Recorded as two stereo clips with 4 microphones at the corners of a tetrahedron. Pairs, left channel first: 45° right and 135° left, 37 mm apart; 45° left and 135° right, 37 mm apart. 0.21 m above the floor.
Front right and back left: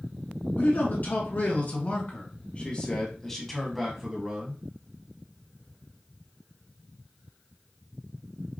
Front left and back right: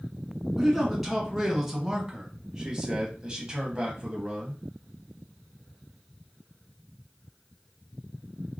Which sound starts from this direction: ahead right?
A man speaking, at 0.6 s.